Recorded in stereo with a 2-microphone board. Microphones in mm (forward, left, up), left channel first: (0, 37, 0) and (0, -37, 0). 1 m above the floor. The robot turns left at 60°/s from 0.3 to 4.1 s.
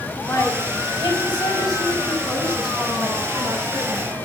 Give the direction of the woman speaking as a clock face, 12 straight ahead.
7 o'clock.